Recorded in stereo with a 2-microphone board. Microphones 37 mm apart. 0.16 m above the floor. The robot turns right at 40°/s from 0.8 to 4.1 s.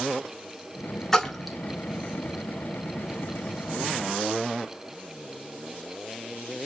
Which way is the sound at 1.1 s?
10° left (ahead or behind).